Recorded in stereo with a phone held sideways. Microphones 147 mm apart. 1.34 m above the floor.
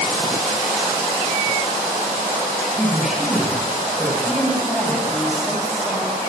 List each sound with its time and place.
2.7 s a man speaking: 5° right (ahead or behind), 7 m
4.2 s a woman speaking: centre (ahead or behind), 6 m